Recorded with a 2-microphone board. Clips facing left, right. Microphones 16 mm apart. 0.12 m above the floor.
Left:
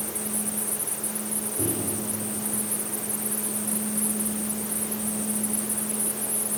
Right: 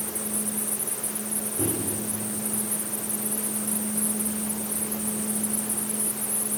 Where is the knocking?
No knocking in this recording.